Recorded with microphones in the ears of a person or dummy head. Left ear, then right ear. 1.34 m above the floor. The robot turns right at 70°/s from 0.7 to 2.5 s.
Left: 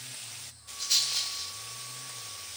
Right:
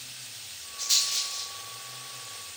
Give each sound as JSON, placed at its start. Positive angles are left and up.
{"t": 0.8, "sound": "a rattle", "side_deg": -20, "distance_m": 3.0}